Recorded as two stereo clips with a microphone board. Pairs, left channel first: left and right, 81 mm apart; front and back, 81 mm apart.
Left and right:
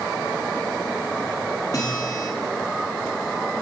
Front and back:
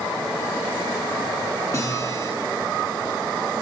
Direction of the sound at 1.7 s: 45° left.